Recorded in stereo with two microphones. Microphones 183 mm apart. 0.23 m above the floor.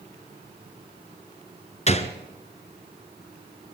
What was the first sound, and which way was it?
A gunshot, 35° left (ahead or behind).